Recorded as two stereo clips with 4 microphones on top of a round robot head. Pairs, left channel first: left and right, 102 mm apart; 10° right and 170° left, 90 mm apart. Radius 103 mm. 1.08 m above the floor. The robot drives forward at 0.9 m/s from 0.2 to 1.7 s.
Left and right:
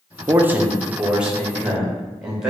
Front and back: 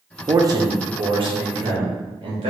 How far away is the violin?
I don't hear a violin.